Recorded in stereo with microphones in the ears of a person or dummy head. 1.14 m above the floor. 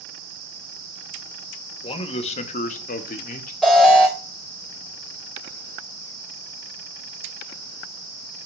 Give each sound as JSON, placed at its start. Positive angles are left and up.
{"t": 1.8, "sound": "a man speaking", "side_deg": 30, "distance_m": 1.2}
{"t": 3.6, "sound": "an alarm", "side_deg": 5, "distance_m": 2.0}